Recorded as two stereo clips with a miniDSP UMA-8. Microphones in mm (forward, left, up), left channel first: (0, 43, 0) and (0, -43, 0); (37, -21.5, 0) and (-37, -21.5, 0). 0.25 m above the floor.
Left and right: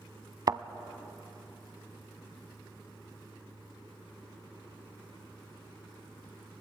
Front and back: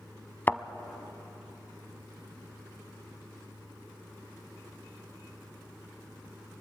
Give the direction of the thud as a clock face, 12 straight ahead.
2 o'clock.